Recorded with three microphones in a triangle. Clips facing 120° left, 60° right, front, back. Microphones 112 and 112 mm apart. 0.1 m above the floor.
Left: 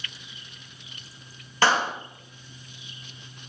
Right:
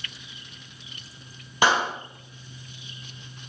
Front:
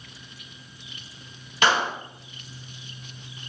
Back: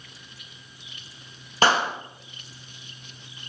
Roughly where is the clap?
Behind right.